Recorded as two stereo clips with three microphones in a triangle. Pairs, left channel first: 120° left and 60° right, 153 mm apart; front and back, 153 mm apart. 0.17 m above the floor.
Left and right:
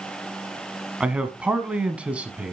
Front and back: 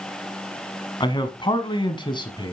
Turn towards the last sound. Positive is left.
turn(degrees=15)